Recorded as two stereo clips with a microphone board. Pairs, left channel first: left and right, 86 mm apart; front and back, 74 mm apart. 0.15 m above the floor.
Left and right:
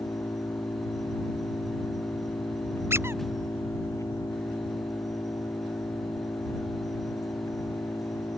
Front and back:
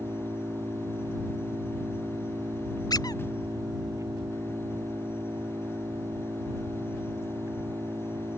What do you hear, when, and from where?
0.0 s an engine running: 140° left
2.9 s a squeak: 30° right